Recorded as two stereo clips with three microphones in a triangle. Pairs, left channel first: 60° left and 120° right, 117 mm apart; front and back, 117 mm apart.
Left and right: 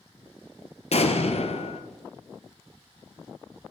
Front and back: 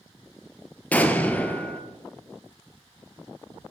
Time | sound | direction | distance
0.9 | an explosion | 80° left | 0.6 m